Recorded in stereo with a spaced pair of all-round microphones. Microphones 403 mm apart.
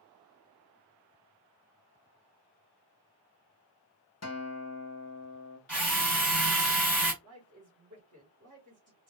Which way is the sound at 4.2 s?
40° left (ahead or behind).